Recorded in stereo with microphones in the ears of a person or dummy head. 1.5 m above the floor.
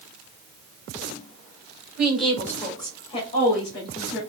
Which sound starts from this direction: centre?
A woman speaking, at 2.0 s.